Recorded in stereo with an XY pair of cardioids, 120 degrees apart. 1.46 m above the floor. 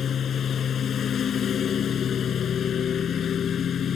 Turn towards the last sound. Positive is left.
turn(degrees=50)